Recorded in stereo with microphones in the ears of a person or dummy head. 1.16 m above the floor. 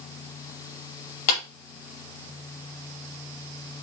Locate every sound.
1.3 s a clap: 85° left, 2.5 m